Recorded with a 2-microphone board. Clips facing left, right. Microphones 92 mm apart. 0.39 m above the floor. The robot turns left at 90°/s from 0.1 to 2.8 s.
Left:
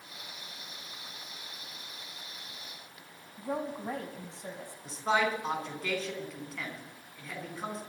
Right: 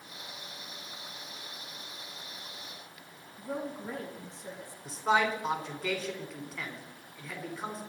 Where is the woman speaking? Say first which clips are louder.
Left 2 dB; 70° left (ahead or behind), 2.5 m.